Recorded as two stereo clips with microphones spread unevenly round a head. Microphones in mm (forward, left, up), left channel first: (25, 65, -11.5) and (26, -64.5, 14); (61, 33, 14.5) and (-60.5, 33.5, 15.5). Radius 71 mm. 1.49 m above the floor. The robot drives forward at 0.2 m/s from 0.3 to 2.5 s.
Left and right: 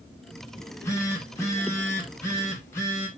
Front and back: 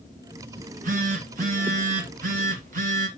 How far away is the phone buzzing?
About 3 m.